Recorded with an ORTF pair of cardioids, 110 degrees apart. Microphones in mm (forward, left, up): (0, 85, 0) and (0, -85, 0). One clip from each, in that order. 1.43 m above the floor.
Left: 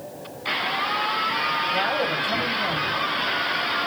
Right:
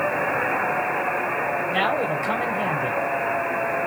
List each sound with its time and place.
1.7 s a man speaking: 70° right, 2.0 m